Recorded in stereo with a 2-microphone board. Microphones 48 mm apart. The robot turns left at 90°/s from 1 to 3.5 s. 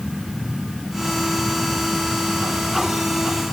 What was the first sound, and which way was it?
Only background noise.